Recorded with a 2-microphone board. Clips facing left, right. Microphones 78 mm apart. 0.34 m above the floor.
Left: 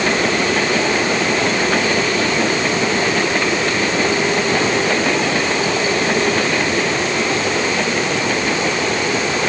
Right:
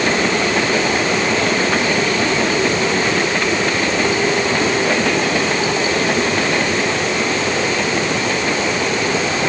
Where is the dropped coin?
I don't hear a dropped coin.